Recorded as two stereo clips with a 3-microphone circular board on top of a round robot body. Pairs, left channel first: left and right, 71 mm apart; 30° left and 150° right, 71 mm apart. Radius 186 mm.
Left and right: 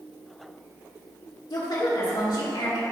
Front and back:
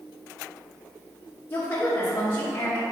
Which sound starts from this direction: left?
A woman speaking, at 1.5 s.